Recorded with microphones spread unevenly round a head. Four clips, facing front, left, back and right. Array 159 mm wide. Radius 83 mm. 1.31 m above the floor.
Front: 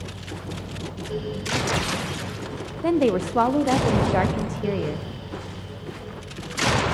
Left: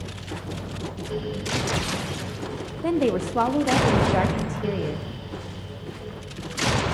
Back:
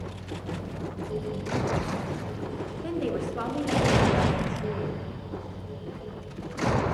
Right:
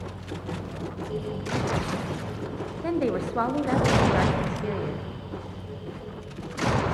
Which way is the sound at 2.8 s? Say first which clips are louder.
Left 4 dB, front 10 dB; 15° left.